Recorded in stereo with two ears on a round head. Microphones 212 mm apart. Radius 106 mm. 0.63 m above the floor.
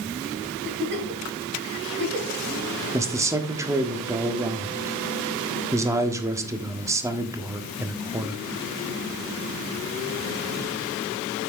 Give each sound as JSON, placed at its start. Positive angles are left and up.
{"t": 0.6, "sound": "a giggle", "side_deg": -50, "distance_m": 2.5}
{"t": 2.9, "sound": "a man speaking", "side_deg": -10, "distance_m": 1.3}